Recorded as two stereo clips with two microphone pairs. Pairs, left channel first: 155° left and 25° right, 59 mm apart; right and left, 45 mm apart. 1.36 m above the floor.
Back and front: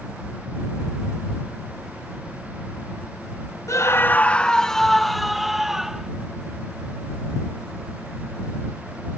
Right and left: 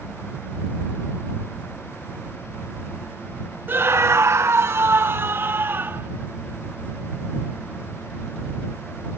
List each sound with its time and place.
3.7 s a scream: 130° left; by 6.1 s 55° left